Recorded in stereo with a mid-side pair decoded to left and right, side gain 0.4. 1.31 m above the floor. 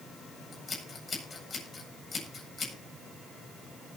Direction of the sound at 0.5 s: 30° left.